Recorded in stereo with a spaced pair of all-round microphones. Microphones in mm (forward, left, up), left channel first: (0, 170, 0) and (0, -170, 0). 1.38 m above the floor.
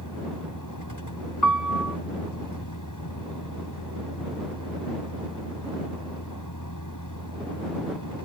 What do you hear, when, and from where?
0.0 s a vehicle: 65° left (ahead or behind)
1.4 s a piano: 60° left (ahead or behind)